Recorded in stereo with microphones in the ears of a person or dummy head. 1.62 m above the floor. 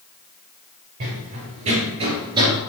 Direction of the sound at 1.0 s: 50° right (ahead or behind).